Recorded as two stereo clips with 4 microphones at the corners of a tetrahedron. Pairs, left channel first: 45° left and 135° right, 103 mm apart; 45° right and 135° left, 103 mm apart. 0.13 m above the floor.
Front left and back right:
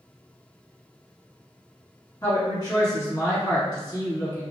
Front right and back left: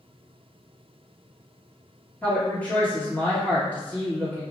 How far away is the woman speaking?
About 1.8 m.